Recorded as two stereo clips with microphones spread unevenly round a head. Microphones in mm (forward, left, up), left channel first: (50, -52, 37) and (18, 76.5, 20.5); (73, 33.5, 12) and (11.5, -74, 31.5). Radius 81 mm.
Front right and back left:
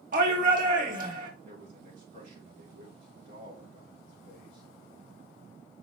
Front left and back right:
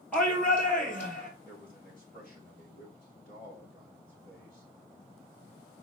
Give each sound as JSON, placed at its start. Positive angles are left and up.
{"t": 0.1, "sound": "a shout", "azimuth_deg": 140, "distance_m": 1.8}
{"t": 1.4, "sound": "a man speaking", "azimuth_deg": 135, "distance_m": 5.0}